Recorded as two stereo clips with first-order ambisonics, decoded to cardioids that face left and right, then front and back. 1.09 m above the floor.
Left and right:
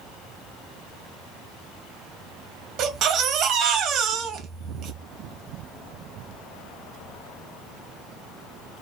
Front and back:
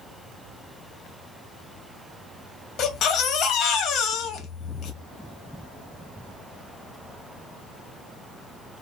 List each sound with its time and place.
2.8 s a baby crying: 45° right, 0.5 m